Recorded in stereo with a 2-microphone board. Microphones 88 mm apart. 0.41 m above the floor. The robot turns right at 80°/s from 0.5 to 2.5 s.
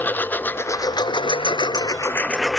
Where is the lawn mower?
25° left (ahead or behind); by 2.6 s centre (ahead or behind).